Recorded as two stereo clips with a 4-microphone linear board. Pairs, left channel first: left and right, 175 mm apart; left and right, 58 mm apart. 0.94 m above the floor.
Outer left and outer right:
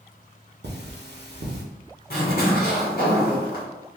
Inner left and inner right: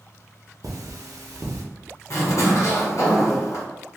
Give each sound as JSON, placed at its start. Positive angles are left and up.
{"t": 0.6, "sound": "cutlery clinking", "side_deg": -75, "distance_m": 0.8}
{"t": 2.1, "sound": "a zipper", "side_deg": 65, "distance_m": 1.5}